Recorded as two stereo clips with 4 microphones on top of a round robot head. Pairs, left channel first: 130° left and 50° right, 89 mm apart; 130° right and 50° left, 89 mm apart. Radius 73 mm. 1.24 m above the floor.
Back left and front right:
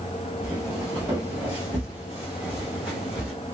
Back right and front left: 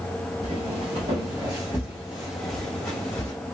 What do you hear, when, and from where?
0.4 s footsteps: 25° left, 1.7 m; by 3.3 s 125° right, 1.3 m